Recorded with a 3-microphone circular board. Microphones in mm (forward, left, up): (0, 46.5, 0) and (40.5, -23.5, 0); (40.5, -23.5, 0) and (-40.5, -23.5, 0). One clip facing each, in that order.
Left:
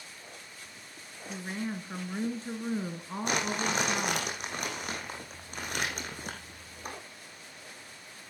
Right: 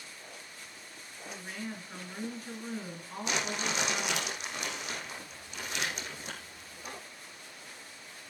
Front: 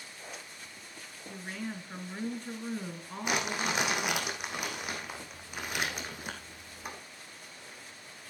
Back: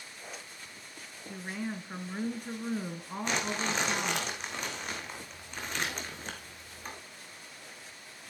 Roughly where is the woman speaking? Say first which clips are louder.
Left 5 dB, back 2 dB; behind left.